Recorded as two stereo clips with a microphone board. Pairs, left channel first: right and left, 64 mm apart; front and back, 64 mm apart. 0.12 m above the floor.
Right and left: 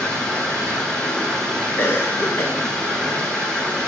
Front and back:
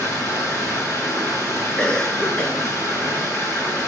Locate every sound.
0.0 s running water: 15° right, 3.5 m
1.8 s a cough: 70° right, 1.5 m